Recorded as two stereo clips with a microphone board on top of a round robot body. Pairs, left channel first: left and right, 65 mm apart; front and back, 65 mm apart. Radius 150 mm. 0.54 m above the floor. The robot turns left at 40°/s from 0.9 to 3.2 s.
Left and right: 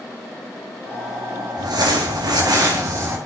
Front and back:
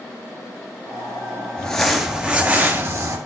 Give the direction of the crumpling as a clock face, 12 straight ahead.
3 o'clock.